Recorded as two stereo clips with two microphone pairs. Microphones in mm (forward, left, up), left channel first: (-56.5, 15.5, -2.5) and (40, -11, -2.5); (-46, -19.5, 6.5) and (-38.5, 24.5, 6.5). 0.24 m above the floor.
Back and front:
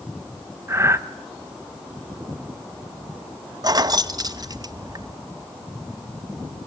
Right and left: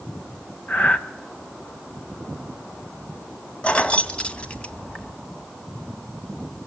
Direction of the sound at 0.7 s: 65° right.